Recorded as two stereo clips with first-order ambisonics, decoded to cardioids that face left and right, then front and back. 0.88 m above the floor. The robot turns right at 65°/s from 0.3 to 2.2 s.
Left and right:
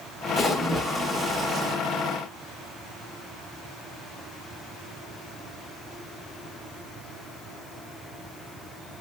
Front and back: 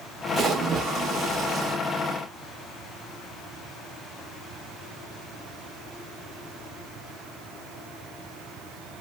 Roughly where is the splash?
Behind left.